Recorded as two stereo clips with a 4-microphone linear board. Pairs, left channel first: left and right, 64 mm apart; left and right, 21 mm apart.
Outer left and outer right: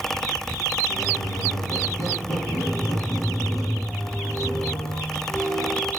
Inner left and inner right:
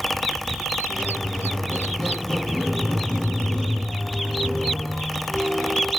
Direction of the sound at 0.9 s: 55° left (ahead or behind).